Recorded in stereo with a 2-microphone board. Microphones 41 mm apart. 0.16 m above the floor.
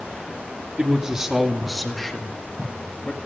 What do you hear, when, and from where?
0.8 s a man speaking: 25° right (ahead or behind), 1.9 m; by 3.2 s 25° left (ahead or behind), 3 m